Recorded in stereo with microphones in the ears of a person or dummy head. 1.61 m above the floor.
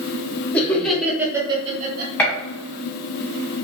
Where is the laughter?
10° left (ahead or behind), 1.2 m; by 2.1 s 60° right (ahead or behind), 0.8 m.